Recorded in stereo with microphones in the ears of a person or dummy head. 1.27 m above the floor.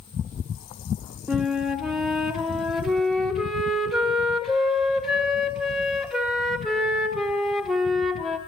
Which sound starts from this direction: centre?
A flute, at 1.3 s.